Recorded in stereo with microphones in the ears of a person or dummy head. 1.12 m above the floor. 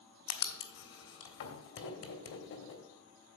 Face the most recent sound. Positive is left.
turn(degrees=60)  # may be behind; listen again after turning